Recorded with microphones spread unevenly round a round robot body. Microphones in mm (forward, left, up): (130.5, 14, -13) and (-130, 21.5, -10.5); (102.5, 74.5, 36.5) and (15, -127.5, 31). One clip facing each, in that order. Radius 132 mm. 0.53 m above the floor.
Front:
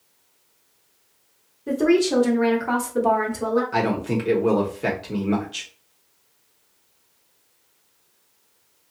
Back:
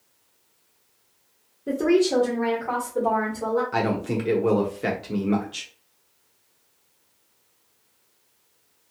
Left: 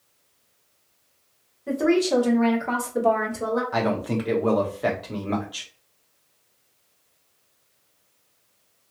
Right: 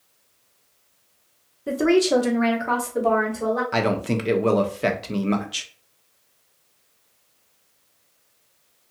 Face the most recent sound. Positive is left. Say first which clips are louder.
# front 2 dB, right 2 dB
turn(degrees=-90)